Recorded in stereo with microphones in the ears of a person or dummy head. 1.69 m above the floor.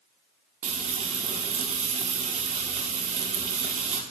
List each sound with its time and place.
0.6 s frying: 40° right (ahead or behind), 1.8 m